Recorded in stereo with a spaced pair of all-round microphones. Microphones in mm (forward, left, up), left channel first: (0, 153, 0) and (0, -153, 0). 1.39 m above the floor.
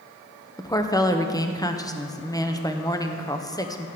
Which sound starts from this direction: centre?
A woman speaking, at 0.6 s.